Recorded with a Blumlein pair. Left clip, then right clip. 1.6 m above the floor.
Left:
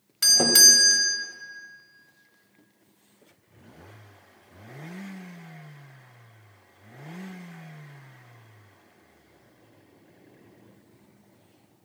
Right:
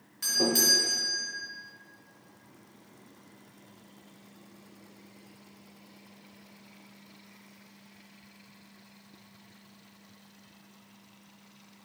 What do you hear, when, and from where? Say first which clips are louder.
0.2 s a doorbell: left 9 dB; 60° left, 0.6 m